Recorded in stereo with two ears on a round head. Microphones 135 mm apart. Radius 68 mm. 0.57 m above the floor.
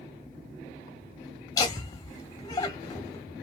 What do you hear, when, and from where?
1.6 s laughter: 25° left (ahead or behind), 1.3 m